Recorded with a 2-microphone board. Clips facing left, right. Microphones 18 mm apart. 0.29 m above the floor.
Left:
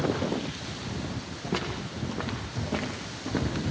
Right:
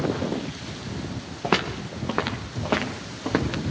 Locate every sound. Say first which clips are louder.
1.4 s footsteps: right 8 dB; 75° right (ahead or behind), 3.5 m; by 3.6 s 60° right (ahead or behind), 5.5 m